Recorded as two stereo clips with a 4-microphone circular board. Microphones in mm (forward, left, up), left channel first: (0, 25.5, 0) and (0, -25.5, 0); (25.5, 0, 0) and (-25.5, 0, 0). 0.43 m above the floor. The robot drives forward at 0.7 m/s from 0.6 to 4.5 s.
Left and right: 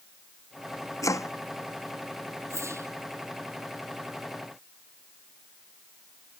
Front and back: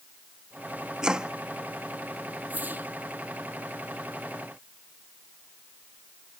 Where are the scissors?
No scissors in this recording.